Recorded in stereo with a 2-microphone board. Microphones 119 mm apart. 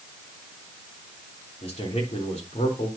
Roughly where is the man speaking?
Left.